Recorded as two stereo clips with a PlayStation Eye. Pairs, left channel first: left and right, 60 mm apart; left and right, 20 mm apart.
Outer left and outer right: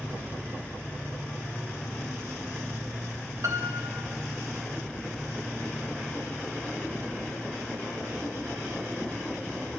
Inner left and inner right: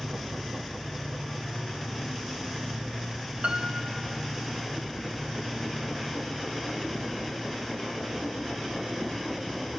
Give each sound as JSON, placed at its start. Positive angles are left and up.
{"t": 3.4, "sound": "a piano", "side_deg": -55, "distance_m": 1.9}